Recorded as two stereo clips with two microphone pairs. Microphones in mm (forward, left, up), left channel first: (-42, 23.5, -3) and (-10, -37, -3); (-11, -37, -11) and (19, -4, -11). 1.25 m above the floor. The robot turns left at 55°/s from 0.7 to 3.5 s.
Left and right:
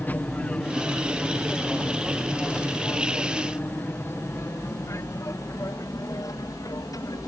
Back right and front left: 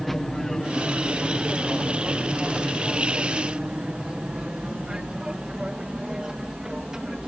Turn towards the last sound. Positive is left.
turn(degrees=120)